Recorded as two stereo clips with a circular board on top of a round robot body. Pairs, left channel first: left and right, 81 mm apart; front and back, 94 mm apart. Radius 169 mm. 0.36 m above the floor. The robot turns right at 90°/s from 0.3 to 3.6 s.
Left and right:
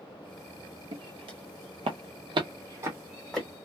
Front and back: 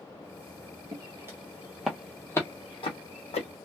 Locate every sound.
0.9 s footsteps: 125° right, 0.7 m; by 3.5 s 15° left, 1.4 m